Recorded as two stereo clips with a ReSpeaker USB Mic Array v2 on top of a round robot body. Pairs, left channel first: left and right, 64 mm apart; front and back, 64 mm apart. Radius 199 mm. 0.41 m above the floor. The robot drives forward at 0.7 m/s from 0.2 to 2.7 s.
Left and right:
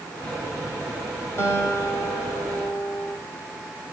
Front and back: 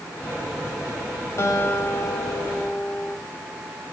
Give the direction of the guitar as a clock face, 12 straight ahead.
10 o'clock.